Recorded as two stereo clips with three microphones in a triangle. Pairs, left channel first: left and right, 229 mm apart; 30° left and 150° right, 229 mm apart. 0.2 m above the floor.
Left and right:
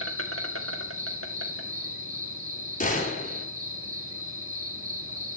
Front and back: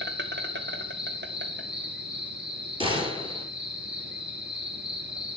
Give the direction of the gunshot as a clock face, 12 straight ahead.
7 o'clock.